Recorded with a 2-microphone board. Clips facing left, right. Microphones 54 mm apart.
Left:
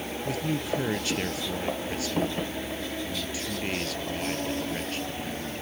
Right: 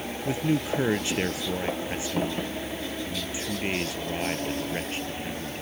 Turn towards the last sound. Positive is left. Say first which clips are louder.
# right 4 dB
turn(degrees=-20)  # may be behind; listen again after turning